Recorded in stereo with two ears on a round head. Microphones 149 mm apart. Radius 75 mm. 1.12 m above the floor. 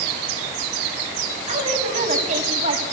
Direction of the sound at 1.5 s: 45° right (ahead or behind).